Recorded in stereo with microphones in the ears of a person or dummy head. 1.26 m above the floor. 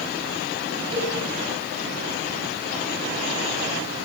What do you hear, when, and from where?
0.9 s a cowbell: 25° right (ahead or behind), 6 m